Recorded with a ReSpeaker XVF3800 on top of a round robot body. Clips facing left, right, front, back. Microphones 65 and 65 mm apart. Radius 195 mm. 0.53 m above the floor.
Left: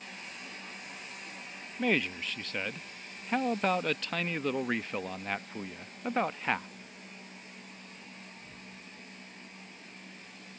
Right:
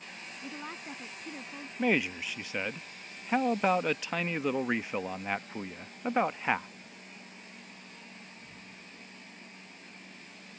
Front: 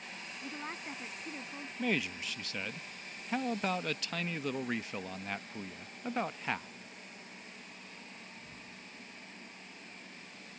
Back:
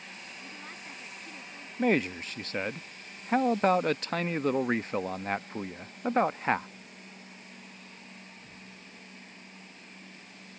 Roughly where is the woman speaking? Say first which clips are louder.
Right 4 dB, front 6 dB; ahead right.